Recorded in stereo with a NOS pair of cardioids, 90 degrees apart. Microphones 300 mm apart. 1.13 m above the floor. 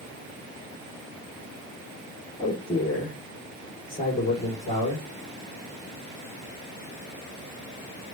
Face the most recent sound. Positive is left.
turn(degrees=20)